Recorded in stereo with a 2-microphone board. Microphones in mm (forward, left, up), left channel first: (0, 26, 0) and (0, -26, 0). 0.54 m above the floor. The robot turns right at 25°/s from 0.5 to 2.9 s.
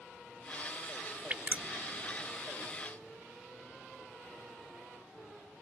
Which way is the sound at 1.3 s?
35° right (ahead or behind).